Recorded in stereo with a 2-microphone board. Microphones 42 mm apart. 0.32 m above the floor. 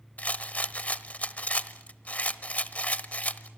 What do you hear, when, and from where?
0.2 s a rattle: 35° left (ahead or behind), 0.9 m